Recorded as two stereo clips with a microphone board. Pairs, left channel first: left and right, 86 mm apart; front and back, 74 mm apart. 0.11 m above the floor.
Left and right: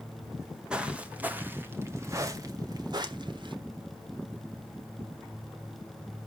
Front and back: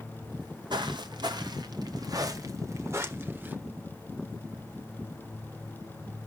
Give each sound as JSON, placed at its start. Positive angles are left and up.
{"t": 0.3, "sound": "footsteps", "azimuth_deg": -175, "distance_m": 2.0}